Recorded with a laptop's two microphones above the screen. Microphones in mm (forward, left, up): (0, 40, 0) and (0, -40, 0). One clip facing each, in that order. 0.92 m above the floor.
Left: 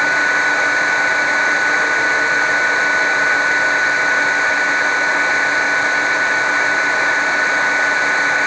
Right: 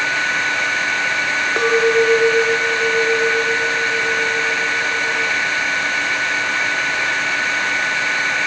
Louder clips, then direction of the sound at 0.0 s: Left 5 dB; 25° left (ahead or behind).